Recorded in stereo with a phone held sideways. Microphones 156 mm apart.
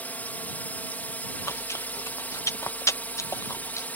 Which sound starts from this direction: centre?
A drone, at 0.0 s.